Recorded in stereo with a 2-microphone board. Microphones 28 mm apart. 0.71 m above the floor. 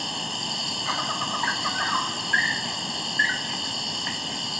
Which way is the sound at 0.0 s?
10° right (ahead or behind).